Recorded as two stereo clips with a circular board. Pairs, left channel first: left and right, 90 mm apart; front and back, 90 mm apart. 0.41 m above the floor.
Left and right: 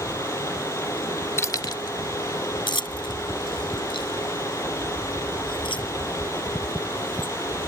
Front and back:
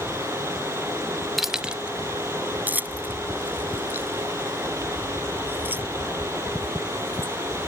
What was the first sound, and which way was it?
Keys jangling, 90° left.